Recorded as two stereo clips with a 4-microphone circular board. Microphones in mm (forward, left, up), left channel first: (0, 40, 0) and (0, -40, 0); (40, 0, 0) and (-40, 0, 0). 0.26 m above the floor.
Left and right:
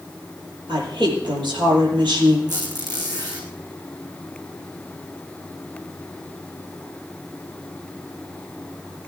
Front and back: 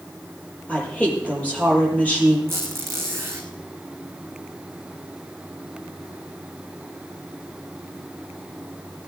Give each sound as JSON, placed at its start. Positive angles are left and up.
{"t": 0.7, "sound": "a woman speaking", "azimuth_deg": -75, "distance_m": 7.0}
{"t": 2.5, "sound": "a squeak", "azimuth_deg": -125, "distance_m": 3.5}